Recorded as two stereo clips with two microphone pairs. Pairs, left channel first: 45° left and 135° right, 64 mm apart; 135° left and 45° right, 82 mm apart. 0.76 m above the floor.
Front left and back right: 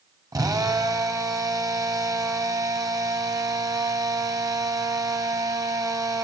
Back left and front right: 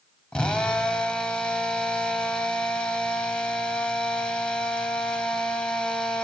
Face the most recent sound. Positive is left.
turn(degrees=-150)